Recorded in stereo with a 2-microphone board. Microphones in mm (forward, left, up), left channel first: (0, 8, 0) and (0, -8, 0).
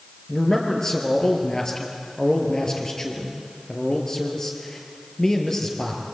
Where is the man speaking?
40° left (ahead or behind), 4 m.